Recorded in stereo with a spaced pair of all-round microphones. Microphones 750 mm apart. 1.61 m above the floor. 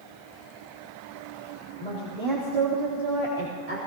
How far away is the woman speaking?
About 4 m.